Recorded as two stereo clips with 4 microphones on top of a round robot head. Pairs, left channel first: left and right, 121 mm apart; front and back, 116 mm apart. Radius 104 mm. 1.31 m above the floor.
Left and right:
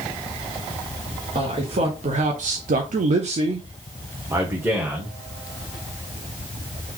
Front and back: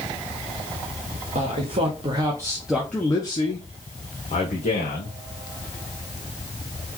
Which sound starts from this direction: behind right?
A man speaking, at 1.4 s.